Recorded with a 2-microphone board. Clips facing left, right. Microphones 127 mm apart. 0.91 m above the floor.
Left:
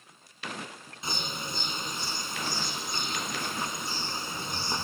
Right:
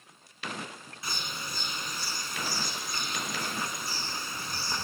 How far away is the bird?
About 1.6 m.